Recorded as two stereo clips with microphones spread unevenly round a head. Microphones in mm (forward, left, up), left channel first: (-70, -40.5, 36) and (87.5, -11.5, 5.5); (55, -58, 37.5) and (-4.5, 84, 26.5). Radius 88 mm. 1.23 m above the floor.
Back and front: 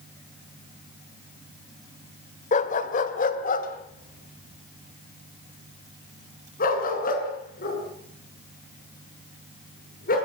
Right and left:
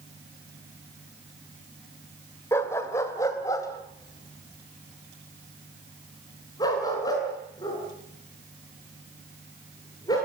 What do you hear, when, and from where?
2.5 s a dog barking: 140° right, 1.6 m; by 10.2 s 135° right, 8 m